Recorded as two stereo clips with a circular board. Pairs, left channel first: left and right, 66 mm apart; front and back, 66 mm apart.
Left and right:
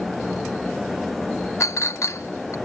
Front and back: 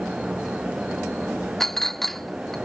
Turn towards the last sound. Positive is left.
turn(degrees=80)